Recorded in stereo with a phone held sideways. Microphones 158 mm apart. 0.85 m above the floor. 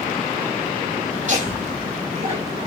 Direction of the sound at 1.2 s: 50° right (ahead or behind).